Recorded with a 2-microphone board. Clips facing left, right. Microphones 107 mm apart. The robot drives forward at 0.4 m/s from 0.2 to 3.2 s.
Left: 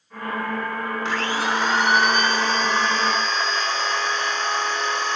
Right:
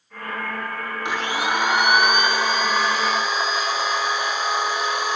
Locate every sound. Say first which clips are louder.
1.1 s a blender: right 1 dB; 20° right (ahead or behind), 1.5 m; by 5.2 s 10° right (ahead or behind), 2.5 m